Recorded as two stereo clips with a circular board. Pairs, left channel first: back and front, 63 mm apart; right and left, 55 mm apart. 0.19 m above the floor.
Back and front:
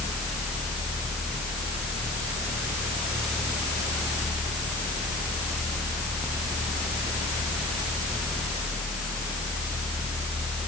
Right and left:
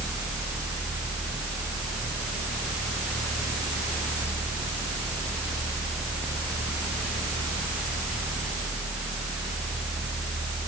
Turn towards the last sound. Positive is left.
No sound to turn to.